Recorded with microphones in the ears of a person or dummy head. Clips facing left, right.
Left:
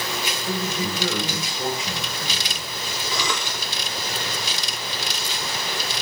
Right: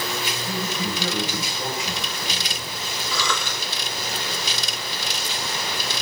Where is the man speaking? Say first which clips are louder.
Left 3 dB; 60° left (ahead or behind), 9.5 m.